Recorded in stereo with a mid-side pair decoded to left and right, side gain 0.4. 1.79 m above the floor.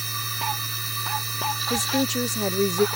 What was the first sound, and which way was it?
A machine running, 25° right.